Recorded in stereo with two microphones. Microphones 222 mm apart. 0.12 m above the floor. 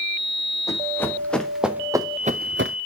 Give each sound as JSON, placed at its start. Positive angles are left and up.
{"t": 0.7, "sound": "running footsteps", "side_deg": 15, "distance_m": 2.5}